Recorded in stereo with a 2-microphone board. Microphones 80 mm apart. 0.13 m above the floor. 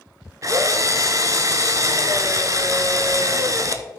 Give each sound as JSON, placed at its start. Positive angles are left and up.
{"t": 0.4, "sound": "a drill", "side_deg": -45, "distance_m": 0.5}